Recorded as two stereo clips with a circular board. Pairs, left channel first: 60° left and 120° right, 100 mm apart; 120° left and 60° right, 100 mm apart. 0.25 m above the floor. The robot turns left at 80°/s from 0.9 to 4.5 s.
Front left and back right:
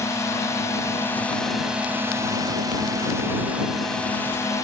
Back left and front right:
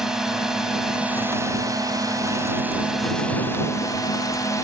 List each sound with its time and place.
0.0 s a drone: 20° left; by 4.6 s 95° left